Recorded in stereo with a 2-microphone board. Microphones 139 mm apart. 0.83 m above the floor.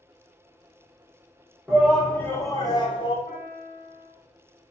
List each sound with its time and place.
1.7 s a shout: 10° right (ahead or behind), 0.6 m; by 3.2 s 40° left (ahead or behind), 0.9 m
3.3 s a piano: 55° left (ahead or behind), 1.0 m